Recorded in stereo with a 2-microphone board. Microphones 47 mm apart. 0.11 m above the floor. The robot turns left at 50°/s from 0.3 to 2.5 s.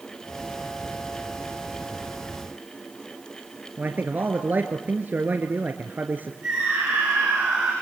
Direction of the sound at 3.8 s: 40° right (ahead or behind).